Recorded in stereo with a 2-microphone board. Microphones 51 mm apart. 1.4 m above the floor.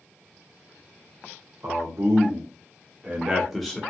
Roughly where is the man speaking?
Right.